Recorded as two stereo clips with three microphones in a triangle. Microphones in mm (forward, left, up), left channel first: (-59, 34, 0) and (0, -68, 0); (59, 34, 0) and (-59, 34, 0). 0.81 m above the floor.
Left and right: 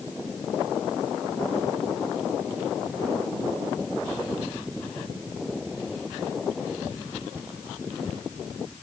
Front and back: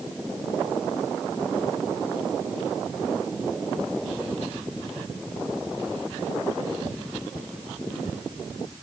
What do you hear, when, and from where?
Only background noise.